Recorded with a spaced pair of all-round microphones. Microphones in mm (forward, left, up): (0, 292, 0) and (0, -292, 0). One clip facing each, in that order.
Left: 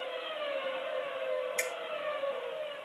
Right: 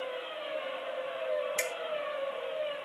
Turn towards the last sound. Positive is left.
turn(degrees=-40)  # may be behind; listen again after turning